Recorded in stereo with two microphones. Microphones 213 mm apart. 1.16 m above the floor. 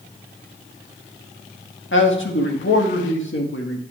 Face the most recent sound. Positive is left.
turn(degrees=65)  # may be behind; listen again after turning